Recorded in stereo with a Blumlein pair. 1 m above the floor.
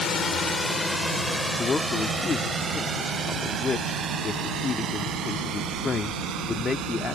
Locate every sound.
0.0 s a drone: 20° left; by 7.2 s 30° right
1.6 s a man speaking: 20° left